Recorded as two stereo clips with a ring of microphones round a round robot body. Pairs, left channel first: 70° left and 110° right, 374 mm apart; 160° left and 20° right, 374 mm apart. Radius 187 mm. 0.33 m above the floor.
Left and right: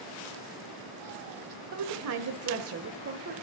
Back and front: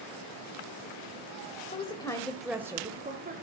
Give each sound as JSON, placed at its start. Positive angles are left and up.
{"t": 1.7, "sound": "a woman speaking", "azimuth_deg": -135, "distance_m": 1.5}